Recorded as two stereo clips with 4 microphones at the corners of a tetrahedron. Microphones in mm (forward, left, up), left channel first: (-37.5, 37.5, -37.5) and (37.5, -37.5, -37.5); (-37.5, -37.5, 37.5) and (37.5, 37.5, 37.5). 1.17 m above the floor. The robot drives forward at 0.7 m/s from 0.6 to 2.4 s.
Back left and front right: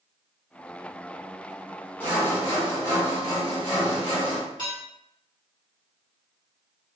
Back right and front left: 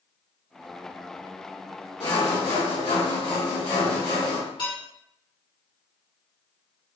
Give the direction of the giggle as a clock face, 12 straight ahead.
I don't hear a giggle.